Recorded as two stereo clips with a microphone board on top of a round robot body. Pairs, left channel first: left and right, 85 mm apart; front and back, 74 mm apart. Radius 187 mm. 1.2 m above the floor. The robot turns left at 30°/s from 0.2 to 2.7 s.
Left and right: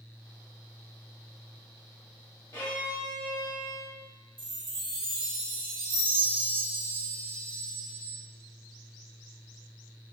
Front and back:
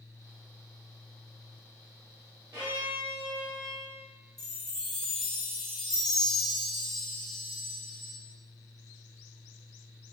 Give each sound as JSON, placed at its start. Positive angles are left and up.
{"t": 2.5, "sound": "a violin", "azimuth_deg": 125, "distance_m": 1.7}
{"t": 4.4, "sound": "a chime", "azimuth_deg": -85, "distance_m": 0.9}